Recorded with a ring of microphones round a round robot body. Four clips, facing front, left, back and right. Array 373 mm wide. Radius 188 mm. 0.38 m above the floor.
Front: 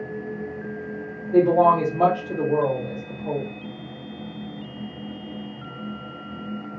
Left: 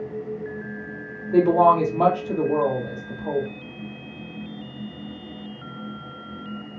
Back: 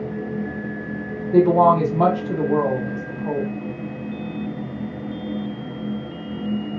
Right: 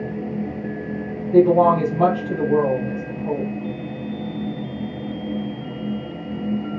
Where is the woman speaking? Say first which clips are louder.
Right 2 dB, back 2 dB; 140° left, 1.2 m.